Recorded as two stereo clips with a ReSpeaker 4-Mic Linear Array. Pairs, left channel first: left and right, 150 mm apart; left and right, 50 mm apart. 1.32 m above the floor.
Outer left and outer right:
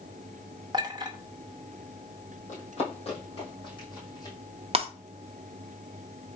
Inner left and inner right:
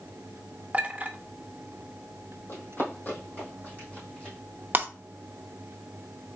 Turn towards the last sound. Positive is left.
turn(degrees=-40)  # may be behind; listen again after turning